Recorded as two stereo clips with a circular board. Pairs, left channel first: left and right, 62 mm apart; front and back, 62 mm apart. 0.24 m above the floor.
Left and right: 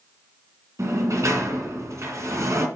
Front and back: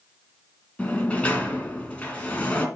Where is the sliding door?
65° right, 1.9 m.